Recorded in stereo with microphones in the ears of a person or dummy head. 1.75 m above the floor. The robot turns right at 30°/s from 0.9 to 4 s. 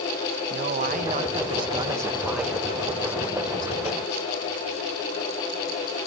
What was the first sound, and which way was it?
A man speaking, 50° right.